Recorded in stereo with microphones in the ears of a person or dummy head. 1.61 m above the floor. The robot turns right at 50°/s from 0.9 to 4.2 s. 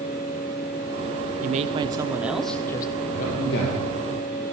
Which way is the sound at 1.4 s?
50° right.